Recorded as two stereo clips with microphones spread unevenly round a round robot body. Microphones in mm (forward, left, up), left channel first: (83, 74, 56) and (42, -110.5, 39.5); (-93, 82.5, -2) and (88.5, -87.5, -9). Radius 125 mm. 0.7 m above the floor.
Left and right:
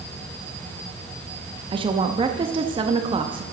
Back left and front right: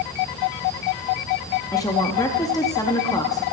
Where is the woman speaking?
150° right, 0.6 m.